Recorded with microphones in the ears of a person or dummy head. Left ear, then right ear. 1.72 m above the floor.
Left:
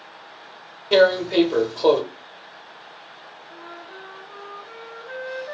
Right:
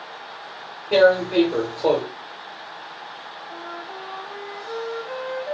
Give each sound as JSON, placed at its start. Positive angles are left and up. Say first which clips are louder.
{"t": 0.9, "sound": "tearing paper", "louder": "even", "side_deg": 50, "distance_m": 0.9}
{"t": 3.5, "sound": "a flute", "louder": "right 4 dB", "side_deg": -70, "distance_m": 2.5}